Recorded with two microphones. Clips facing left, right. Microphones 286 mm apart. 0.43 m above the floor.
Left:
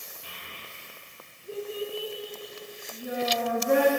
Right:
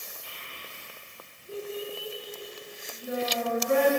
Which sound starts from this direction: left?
A child speaking, at 0.2 s.